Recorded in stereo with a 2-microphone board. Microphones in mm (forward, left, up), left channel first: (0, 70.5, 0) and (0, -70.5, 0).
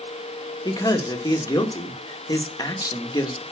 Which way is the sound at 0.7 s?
25° left (ahead or behind).